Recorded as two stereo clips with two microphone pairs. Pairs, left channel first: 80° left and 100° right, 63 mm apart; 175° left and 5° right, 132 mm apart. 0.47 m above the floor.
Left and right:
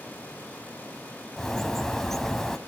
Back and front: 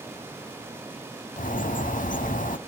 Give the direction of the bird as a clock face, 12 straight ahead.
6 o'clock.